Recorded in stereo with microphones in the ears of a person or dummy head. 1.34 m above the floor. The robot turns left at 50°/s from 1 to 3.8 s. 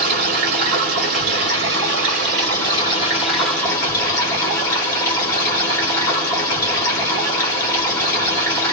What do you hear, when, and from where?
0.0 s running water: 65° right, 1.3 m; by 8.7 s 155° left, 1.3 m